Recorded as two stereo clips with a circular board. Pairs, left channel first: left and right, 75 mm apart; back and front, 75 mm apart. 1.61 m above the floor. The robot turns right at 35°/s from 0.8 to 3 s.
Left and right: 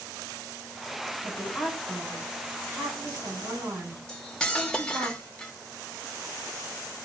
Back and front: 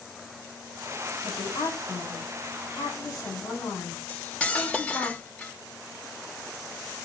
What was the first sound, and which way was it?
A woman speaking, 170° left.